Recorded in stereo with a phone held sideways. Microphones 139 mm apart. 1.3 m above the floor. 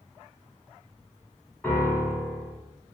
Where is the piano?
10° left (ahead or behind), 0.8 m.